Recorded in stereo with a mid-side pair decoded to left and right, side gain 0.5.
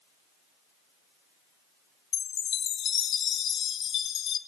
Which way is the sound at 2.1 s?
55° left.